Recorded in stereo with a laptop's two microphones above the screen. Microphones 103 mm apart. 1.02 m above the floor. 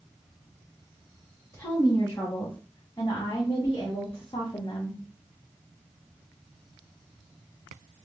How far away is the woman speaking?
About 2.0 m.